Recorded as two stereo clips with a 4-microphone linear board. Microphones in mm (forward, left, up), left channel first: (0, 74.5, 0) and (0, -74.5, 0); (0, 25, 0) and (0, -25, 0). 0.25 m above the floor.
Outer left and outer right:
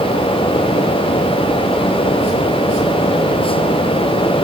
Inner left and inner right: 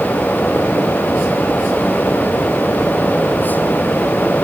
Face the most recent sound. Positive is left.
No sound to turn to.